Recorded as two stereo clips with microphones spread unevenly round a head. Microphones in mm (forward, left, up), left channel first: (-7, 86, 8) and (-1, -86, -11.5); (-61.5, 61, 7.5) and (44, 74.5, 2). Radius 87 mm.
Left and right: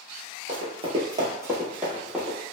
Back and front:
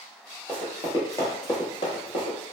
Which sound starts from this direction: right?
Running footsteps, at 0.5 s.